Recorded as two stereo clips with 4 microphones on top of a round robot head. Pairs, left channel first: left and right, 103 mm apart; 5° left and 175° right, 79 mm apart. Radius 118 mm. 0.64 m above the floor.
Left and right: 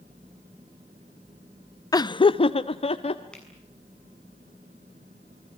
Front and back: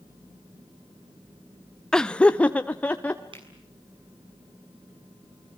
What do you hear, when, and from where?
1.9 s laughter: 85° left, 0.6 m; by 3.2 s 80° left, 1.4 m
3.3 s a finger snap: 170° left, 6.5 m